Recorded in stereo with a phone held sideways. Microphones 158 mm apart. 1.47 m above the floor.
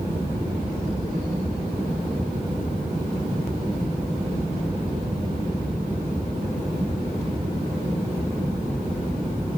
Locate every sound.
0.0 s a fan: 35° right (ahead or behind)